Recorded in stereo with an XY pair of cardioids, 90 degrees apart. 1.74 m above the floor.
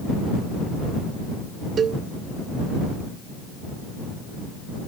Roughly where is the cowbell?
Ahead right.